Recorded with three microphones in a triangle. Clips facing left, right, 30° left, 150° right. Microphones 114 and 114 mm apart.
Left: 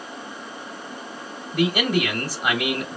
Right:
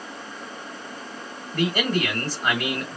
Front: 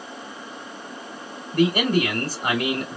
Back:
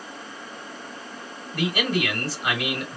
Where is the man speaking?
20° left, 1.7 m.